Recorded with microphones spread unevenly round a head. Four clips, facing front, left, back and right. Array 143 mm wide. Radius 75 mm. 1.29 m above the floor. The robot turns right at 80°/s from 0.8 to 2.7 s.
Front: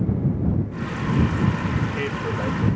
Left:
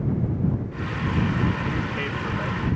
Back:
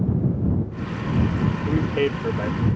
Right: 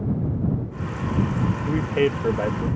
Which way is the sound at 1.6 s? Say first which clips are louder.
Right 7 dB, back 4 dB; 155° right.